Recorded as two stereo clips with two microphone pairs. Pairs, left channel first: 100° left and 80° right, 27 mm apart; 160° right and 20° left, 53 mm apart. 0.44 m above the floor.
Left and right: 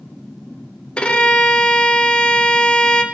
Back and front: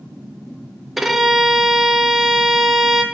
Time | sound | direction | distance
1.0 | a violin | 110° left | 0.8 m